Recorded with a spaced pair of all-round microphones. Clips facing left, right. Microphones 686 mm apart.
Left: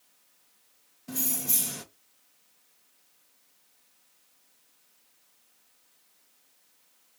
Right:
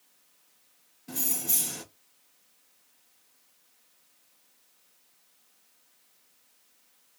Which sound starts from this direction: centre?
Keys jangling, at 1.1 s.